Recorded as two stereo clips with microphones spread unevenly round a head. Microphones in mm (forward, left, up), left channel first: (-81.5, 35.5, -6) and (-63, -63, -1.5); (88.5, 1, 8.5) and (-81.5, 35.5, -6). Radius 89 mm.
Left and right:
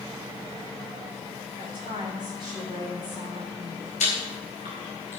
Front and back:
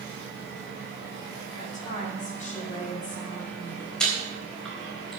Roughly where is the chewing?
Left.